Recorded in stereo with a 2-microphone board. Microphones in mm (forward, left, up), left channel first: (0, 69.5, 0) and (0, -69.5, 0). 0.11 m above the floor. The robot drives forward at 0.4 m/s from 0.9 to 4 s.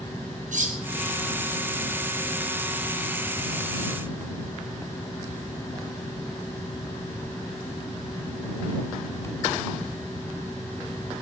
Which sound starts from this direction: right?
Cutlery clinking, at 0.5 s.